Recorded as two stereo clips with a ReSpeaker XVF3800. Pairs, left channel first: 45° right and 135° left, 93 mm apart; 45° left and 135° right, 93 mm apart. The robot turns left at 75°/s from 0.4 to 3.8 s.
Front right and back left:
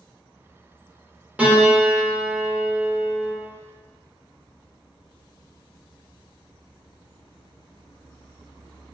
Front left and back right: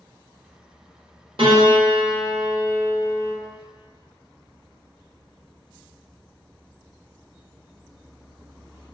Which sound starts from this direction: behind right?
A piano, at 1.4 s.